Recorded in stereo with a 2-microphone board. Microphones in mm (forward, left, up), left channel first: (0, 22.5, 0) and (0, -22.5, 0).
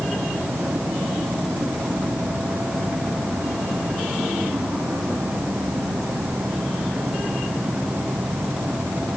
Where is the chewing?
I don't hear chewing.